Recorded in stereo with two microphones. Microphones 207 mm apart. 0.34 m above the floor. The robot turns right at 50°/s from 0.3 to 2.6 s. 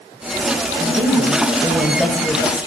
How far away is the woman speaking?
About 2.0 m.